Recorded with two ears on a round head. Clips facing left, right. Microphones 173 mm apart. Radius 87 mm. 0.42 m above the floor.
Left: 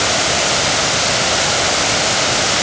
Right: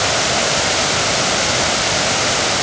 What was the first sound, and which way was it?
Only background noise.